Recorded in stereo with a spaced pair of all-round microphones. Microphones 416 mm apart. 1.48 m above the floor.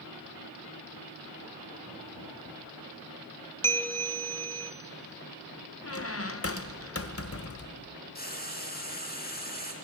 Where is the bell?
5° left (ahead or behind), 0.9 m.